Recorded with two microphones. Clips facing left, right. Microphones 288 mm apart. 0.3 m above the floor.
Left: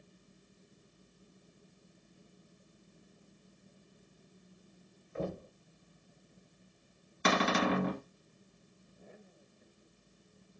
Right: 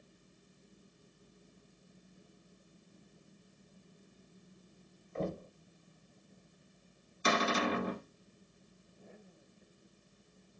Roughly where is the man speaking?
No man speaking in this recording.